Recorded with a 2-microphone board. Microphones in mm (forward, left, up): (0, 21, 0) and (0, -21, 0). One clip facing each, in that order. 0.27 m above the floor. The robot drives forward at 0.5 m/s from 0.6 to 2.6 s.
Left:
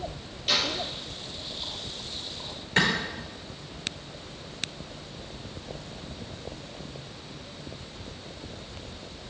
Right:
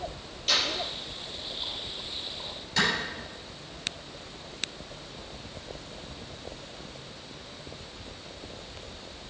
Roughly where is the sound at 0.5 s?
Centre.